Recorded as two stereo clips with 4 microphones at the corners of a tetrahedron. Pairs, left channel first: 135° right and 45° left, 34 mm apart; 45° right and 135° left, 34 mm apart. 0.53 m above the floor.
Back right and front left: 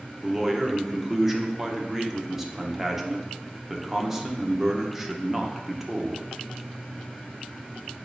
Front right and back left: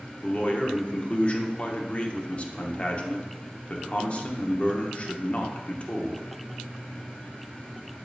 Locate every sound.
0.2 s a man speaking: 30° right, 0.8 m